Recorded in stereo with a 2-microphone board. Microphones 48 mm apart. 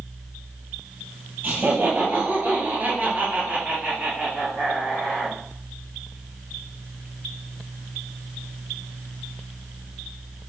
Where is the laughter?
35° right (ahead or behind), 1.7 m; by 5.4 s 15° right (ahead or behind), 1.7 m.